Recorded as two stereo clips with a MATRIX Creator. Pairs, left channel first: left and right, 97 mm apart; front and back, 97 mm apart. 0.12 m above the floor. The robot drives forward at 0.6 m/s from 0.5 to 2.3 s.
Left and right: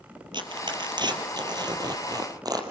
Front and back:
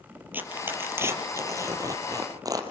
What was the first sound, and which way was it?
Tearing paper, 115° right.